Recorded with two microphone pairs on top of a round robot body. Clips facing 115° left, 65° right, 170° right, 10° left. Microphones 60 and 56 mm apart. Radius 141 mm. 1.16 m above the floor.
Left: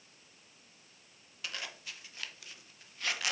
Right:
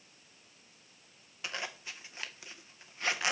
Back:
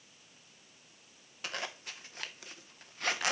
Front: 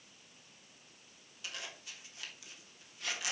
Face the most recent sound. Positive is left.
turn(degrees=-130)